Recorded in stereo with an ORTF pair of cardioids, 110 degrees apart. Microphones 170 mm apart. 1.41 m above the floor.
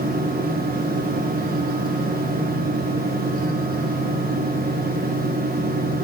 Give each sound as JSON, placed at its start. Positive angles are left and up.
{"t": 0.0, "sound": "a fan", "azimuth_deg": -60, "distance_m": 1.4}